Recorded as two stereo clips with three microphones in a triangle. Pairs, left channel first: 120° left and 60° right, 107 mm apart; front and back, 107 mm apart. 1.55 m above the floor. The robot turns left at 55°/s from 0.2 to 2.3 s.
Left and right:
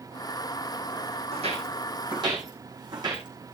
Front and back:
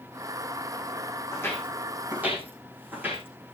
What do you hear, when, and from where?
1.3 s footsteps: 60° right, 4 m; by 3.5 s 105° right, 5.5 m